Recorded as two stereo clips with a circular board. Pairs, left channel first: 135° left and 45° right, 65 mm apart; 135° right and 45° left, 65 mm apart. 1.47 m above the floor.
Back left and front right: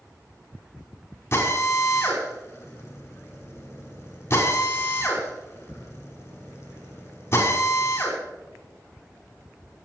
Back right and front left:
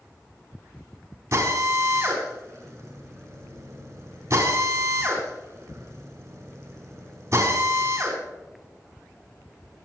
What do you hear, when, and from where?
1.3 s a drill: 85° left, 5 m